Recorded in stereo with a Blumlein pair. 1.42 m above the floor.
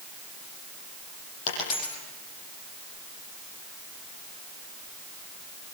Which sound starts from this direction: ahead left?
A dropped coin, at 1.5 s.